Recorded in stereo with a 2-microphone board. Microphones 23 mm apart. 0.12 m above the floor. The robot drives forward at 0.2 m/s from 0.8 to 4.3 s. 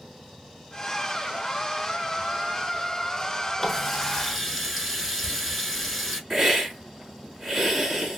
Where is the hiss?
20° right (ahead or behind), 1.7 m.